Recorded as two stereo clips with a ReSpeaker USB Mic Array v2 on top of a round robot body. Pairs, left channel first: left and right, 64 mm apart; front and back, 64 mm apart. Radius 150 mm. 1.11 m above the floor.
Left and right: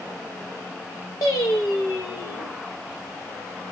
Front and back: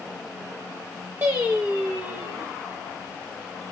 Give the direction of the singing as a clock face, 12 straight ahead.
8 o'clock.